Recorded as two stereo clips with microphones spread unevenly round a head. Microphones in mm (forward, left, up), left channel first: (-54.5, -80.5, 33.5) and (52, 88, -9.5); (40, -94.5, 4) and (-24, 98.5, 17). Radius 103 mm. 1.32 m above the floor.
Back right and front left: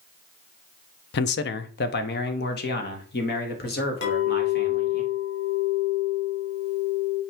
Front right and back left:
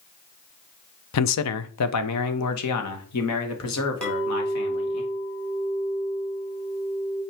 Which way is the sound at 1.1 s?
80° right.